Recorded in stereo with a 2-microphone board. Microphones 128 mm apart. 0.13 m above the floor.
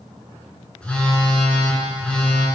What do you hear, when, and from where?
0.8 s a phone buzzing: 10° left (ahead or behind), 1.5 m